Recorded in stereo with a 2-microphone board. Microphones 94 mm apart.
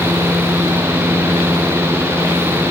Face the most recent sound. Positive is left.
No sound to turn to.